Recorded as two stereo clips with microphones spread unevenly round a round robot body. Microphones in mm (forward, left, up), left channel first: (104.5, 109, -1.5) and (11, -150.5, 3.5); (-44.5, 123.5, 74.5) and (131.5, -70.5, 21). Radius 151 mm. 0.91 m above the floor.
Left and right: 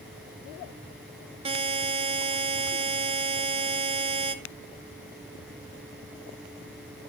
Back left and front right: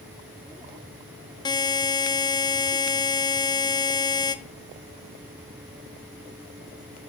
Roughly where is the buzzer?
Behind right.